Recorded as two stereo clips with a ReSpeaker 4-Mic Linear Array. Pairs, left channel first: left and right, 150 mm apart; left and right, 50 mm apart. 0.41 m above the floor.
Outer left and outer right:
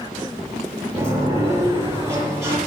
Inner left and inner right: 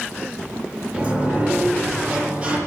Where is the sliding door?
20° right (ahead or behind), 7 m.